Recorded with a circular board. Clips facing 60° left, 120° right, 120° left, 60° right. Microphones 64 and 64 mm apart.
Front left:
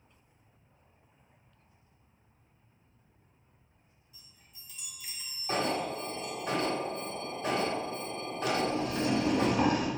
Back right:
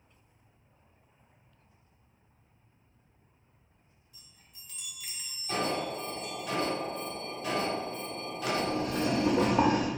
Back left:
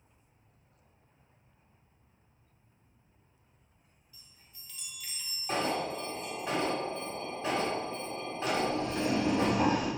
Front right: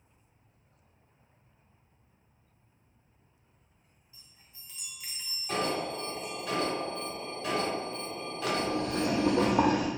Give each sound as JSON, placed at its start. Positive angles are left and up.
{"t": 4.1, "sound": "a chime", "azimuth_deg": -125, "distance_m": 0.9}
{"t": 5.5, "sound": "an alarm", "azimuth_deg": 75, "distance_m": 1.4}
{"t": 8.5, "sound": "boiling", "azimuth_deg": -80, "distance_m": 1.1}